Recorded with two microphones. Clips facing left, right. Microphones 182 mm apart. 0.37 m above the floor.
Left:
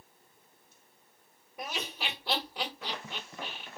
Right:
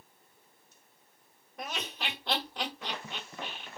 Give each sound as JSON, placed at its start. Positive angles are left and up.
{"t": 1.6, "sound": "laughter", "side_deg": 10, "distance_m": 1.6}